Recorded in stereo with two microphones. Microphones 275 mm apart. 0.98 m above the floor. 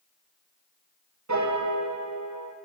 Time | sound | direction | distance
1.3 | a piano | 75° right (ahead or behind) | 0.6 m